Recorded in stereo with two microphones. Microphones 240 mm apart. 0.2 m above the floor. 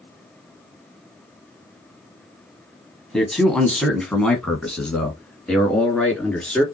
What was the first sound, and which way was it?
A man speaking, centre (ahead or behind).